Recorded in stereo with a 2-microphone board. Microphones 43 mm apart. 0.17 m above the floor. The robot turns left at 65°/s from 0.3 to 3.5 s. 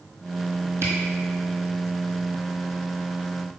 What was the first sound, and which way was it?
A camera shutter, 65° right (ahead or behind).